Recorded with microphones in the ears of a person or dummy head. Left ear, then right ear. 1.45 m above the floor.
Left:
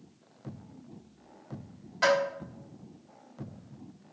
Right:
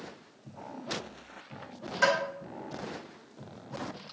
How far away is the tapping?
About 2 m.